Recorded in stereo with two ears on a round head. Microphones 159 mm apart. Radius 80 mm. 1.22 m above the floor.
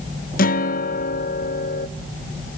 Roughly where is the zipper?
No zipper in this recording.